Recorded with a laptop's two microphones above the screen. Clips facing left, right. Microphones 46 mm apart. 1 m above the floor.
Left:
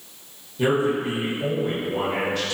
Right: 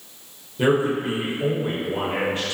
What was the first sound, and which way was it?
A man speaking, 25° right (ahead or behind).